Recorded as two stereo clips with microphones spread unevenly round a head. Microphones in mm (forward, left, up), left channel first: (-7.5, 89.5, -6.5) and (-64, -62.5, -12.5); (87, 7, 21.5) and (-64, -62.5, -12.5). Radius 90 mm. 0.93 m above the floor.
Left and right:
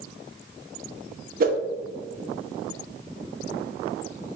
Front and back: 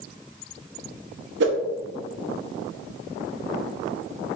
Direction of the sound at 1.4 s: 145° right.